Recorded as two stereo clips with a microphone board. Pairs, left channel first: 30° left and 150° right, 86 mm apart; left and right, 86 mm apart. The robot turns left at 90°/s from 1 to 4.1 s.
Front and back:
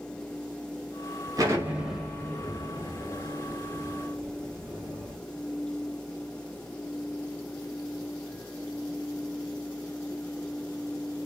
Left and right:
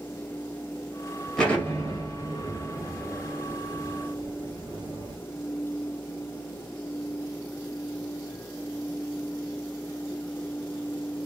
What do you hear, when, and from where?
1.4 s an explosion: 175° left, 2 m; by 5.2 s 70° right, 2 m